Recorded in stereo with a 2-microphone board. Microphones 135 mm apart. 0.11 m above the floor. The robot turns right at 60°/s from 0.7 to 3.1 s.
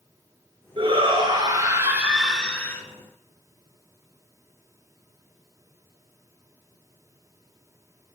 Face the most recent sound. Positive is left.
turn(degrees=50)